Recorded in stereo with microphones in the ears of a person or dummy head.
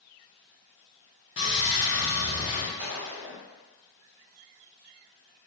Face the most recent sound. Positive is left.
turn(degrees=-45)  # may be behind; listen again after turning